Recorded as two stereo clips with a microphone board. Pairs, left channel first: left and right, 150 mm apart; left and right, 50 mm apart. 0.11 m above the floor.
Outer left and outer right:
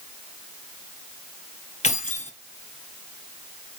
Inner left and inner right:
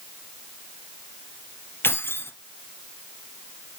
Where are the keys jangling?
50° left (ahead or behind), 1.5 m.